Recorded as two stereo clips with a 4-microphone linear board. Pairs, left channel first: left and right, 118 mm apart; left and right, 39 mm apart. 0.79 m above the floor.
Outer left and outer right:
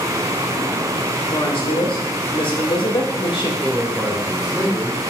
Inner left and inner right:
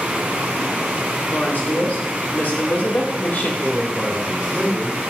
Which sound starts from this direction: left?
A woman speaking, at 1.3 s.